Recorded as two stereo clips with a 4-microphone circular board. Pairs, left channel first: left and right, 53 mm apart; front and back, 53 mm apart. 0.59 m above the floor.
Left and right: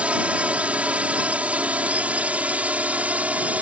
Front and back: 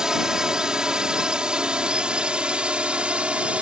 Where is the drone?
115° right; by 3.6 s 130° right.